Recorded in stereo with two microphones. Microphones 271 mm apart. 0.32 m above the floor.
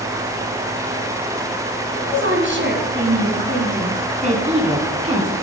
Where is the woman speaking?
50° right (ahead or behind), 3 m; by 5.3 s 20° right (ahead or behind), 4 m.